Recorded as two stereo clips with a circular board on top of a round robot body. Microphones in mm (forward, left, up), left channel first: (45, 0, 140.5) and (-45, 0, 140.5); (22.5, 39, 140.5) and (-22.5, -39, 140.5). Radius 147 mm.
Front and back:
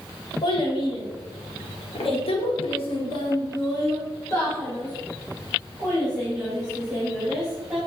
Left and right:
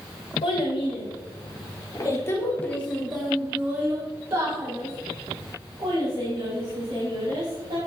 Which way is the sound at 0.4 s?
35° left.